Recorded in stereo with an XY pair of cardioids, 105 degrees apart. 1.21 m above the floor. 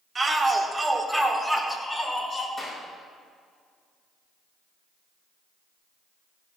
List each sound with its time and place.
0.1 s a shout: 30° right, 3 m; by 2.5 s 15° left, 4.5 m
2.6 s a clap: 10° left, 5 m